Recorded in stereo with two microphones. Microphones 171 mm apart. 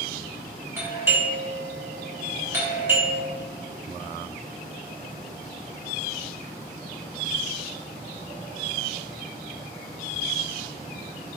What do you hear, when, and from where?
0.8 s a doorbell: 15° right (ahead or behind), 1.1 m